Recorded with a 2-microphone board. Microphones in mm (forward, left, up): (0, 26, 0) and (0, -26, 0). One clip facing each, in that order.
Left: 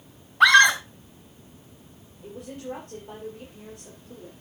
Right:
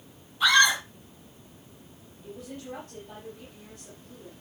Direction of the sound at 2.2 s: 55° left (ahead or behind).